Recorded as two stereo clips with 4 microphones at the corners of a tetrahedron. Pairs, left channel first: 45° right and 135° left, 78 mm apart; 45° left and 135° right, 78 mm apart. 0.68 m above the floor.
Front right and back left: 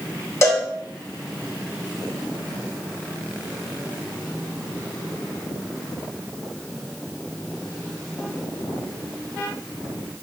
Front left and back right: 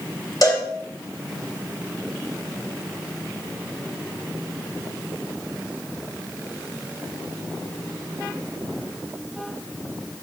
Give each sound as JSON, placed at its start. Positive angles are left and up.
{"t": 0.4, "sound": "a cowbell", "azimuth_deg": 5, "distance_m": 2.5}